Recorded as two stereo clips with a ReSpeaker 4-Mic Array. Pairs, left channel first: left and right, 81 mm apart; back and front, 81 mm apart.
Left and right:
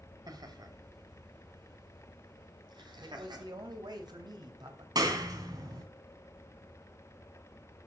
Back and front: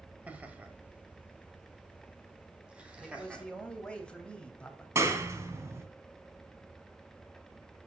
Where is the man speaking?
105° right, 2.5 m.